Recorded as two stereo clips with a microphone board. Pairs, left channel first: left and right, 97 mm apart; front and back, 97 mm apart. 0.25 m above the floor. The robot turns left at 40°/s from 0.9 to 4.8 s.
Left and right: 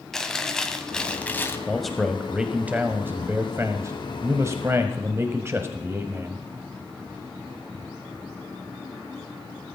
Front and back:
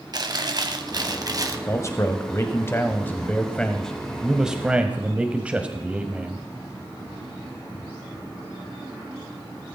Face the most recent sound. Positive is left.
turn(degrees=-115)